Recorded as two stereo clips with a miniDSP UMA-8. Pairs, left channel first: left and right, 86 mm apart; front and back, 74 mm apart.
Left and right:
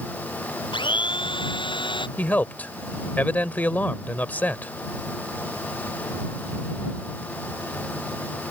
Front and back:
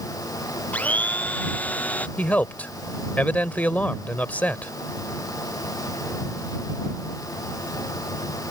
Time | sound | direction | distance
0.7 | a blender | 70° left | ?
2.2 | a man speaking | 45° left | ?